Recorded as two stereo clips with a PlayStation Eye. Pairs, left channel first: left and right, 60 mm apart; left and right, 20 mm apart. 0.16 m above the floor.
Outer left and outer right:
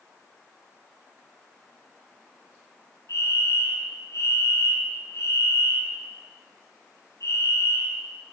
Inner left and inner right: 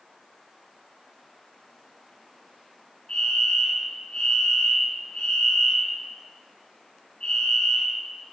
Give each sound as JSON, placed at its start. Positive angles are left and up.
{"t": 3.1, "sound": "a fire alarm", "side_deg": 55, "distance_m": 5.0}